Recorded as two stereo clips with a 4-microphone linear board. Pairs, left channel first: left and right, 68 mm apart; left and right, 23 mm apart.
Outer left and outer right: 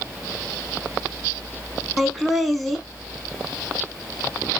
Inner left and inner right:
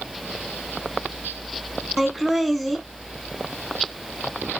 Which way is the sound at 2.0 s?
Centre (ahead or behind).